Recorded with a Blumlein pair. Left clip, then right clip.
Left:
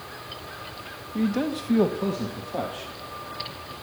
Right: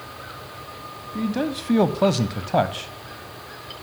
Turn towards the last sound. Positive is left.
turn(degrees=-70)